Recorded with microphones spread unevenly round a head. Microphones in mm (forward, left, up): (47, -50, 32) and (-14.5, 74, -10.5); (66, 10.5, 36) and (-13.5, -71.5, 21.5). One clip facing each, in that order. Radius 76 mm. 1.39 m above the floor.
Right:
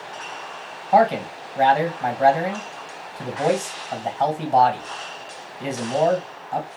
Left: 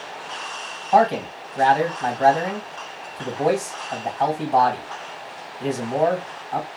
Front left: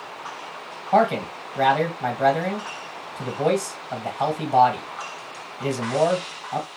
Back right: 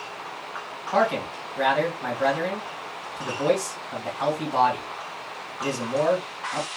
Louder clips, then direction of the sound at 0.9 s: Even, front left 4 dB; 10° left.